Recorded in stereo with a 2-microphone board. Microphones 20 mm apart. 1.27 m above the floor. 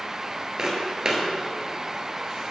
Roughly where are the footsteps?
Right.